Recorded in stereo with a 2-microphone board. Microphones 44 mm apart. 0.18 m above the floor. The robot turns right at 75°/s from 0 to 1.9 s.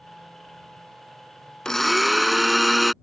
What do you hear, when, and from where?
1.6 s a blender: 15° left (ahead or behind); by 2.9 s centre (ahead or behind)